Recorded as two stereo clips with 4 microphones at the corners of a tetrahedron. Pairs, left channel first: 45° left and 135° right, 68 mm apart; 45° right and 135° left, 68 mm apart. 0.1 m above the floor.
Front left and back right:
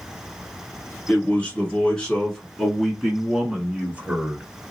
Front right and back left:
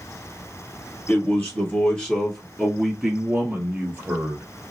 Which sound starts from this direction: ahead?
A man speaking, at 1.1 s.